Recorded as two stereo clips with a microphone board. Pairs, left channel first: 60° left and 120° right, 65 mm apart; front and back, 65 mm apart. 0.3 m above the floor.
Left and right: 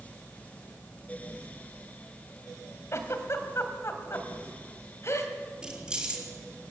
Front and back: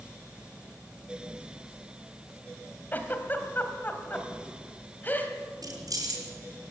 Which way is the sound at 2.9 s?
50° left.